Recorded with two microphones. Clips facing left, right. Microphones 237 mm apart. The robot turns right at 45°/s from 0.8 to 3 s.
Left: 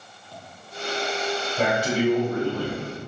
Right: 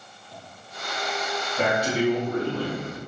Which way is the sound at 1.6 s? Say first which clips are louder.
Even; 25° left.